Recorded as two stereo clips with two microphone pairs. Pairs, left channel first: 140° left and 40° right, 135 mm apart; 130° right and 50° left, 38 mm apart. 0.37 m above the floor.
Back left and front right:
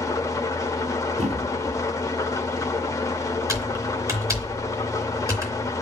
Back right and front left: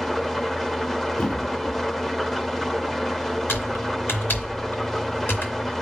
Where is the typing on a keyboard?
105° right, 3.5 m.